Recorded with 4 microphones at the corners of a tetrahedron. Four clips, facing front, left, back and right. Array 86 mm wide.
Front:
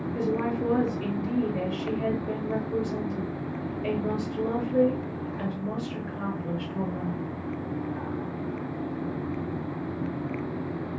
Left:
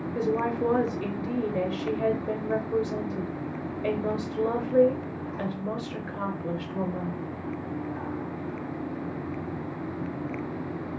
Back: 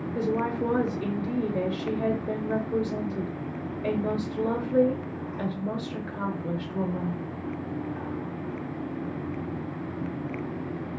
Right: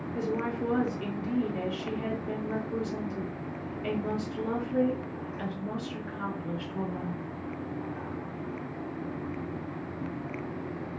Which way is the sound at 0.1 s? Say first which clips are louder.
Left 5 dB, back 1 dB; 135° left.